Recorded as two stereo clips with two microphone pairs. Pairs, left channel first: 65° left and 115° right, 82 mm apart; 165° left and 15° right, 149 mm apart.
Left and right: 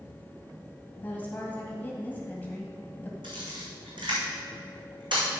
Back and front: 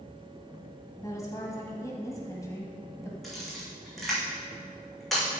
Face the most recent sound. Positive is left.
turn(degrees=-105)